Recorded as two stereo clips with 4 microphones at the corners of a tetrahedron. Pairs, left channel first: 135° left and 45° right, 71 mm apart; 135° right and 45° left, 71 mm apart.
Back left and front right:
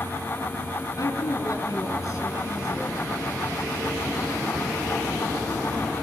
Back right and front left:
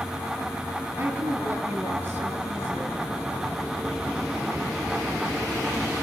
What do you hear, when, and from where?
1.0 s a woman speaking: 100° left, 4.5 m